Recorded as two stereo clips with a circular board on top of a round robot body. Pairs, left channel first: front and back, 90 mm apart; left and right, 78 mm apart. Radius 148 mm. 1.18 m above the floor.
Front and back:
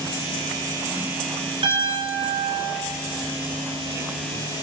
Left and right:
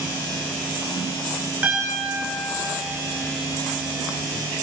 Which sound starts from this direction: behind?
A piano, at 1.6 s.